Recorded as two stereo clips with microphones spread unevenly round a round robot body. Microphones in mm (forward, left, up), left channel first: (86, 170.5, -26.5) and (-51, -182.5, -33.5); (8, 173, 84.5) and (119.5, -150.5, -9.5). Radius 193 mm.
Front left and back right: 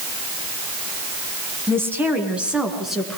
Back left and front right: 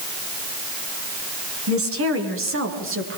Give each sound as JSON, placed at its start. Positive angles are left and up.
{"t": 1.7, "sound": "a woman speaking", "azimuth_deg": -30, "distance_m": 4.5}